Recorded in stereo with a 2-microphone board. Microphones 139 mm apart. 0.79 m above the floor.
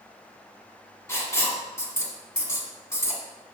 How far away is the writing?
About 1.4 m.